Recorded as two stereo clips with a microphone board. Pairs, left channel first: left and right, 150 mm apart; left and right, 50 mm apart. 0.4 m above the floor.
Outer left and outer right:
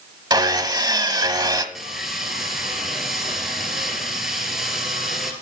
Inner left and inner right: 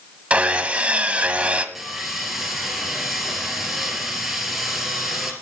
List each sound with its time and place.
0.3 s sawing: 25° right (ahead or behind), 1.1 m
1.8 s sawing: centre (ahead or behind), 3 m